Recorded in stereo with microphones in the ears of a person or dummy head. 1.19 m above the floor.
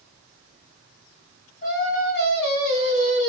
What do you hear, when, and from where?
1.6 s singing: 40° left (ahead or behind), 1.2 m